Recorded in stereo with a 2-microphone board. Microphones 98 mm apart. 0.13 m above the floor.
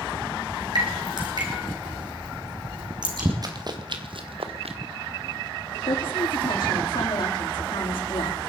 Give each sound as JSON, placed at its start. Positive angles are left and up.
{"t": 0.8, "sound": "dripping", "side_deg": -50, "distance_m": 4.0}
{"t": 3.4, "sound": "running footsteps", "side_deg": -45, "distance_m": 2.5}
{"t": 5.9, "sound": "a woman speaking", "side_deg": 70, "distance_m": 7.0}